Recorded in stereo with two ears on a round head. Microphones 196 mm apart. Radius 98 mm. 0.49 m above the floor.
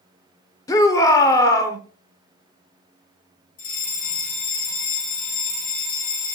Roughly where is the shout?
Centre.